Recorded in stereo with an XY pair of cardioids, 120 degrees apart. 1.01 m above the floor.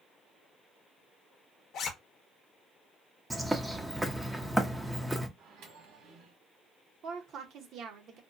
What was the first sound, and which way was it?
A zipper, 60° left.